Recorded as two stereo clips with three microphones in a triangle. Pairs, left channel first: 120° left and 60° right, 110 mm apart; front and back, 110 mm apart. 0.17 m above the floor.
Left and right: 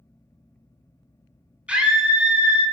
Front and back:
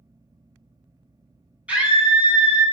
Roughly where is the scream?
Behind right.